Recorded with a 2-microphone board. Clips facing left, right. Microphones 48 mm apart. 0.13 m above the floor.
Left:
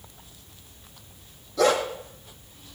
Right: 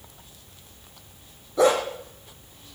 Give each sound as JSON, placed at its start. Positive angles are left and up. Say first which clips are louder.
{"t": 1.6, "sound": "a dog barking", "louder": "right 2 dB", "side_deg": -25, "distance_m": 2.5}